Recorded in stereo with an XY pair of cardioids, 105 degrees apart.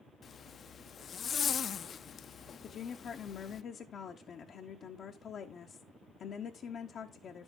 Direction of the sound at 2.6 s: 55° left.